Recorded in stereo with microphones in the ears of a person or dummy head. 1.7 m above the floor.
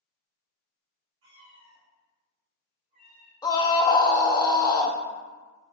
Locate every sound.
1.2 s a cat meowing: 55° right (ahead or behind), 1.5 m; by 3.3 s 70° right (ahead or behind), 3 m
3.4 s a scream: 20° left (ahead or behind), 0.6 m